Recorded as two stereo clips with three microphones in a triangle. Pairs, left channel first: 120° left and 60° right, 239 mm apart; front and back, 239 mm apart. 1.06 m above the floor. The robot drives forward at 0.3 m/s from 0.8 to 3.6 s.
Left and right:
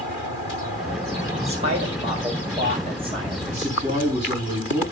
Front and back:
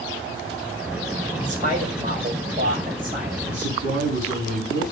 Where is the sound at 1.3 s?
120° right, 4.5 m; by 3.4 s 130° right, 4.5 m.